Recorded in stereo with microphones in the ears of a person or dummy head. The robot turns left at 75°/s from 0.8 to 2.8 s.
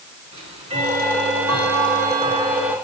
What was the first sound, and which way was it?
Ticking, 30° right.